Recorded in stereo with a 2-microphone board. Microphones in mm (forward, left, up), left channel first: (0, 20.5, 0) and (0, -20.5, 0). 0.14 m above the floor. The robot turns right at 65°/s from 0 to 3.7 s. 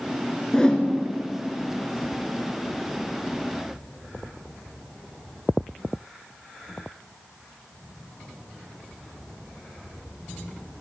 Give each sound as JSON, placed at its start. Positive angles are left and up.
{"t": 0.5, "sound": "a whoosh", "side_deg": 15, "distance_m": 1.2}